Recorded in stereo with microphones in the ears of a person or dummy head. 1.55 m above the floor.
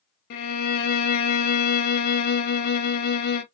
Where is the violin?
55° left (ahead or behind), 0.7 m.